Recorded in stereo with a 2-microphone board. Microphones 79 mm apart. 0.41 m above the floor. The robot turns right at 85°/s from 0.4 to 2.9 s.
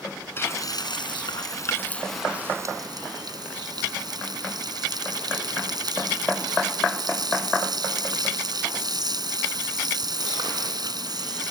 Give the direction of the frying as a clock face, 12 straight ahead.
11 o'clock.